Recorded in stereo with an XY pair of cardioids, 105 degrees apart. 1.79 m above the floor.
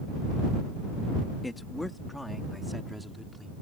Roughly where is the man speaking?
Ahead.